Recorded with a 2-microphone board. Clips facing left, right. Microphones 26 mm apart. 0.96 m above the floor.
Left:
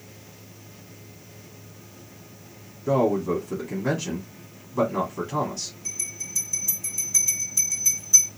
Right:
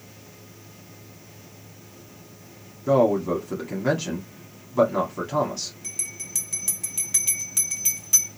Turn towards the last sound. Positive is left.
turn(degrees=-65)  # may be behind; listen again after turning